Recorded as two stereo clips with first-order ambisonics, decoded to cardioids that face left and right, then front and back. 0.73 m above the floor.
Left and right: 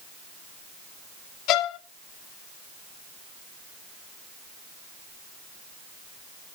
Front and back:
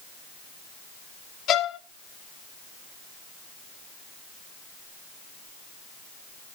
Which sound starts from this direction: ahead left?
A violin, at 1.5 s.